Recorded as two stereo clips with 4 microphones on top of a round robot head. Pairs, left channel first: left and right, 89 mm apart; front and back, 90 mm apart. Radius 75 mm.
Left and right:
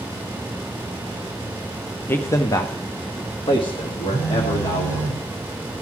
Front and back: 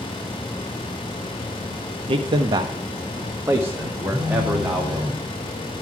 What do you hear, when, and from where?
2.1 s a man speaking: 155° left, 0.9 m; by 5.1 s 105° left, 2.5 m
4.1 s a phone buzzing: 150° left, 4 m